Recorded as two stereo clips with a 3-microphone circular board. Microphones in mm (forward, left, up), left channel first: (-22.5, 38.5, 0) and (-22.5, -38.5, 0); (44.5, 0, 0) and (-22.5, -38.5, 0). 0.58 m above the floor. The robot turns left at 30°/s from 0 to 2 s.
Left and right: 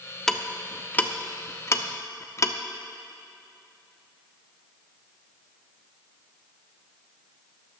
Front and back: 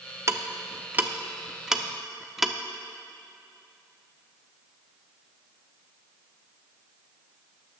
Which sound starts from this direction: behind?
Ticking, at 0.3 s.